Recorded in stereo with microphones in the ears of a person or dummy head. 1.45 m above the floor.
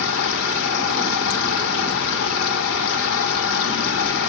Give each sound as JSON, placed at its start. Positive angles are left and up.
{"t": 0.0, "sound": "a machine running", "side_deg": 50, "distance_m": 1.5}